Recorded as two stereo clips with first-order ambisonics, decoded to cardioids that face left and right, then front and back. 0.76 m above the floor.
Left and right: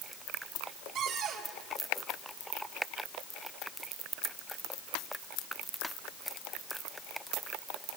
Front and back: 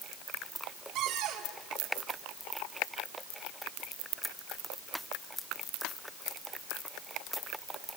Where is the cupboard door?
130° right, 3.5 m.